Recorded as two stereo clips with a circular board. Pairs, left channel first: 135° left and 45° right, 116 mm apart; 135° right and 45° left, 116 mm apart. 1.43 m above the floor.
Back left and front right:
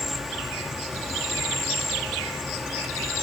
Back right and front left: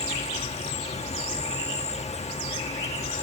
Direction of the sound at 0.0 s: 135° right.